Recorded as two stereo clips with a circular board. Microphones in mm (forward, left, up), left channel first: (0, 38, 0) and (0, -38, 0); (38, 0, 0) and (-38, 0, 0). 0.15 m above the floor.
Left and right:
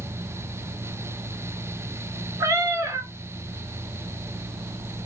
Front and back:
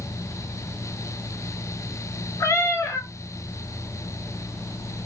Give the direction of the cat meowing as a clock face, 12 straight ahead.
2 o'clock.